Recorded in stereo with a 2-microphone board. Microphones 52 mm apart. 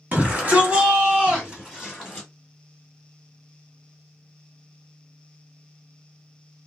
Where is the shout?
30° right (ahead or behind), 1.5 m; by 2.3 s 5° right (ahead or behind), 1.6 m.